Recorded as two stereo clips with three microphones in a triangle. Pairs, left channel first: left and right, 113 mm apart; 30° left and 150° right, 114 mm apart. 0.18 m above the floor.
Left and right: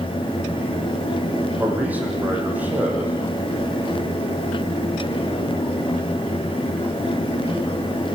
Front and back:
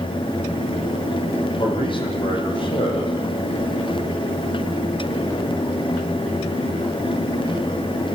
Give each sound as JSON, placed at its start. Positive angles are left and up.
{"t": 1.6, "sound": "a man speaking", "azimuth_deg": -15, "distance_m": 8.0}